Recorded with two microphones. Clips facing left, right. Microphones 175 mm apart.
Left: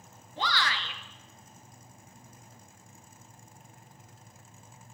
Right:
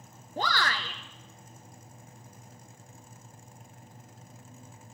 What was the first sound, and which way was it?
A shout, 45° right (ahead or behind).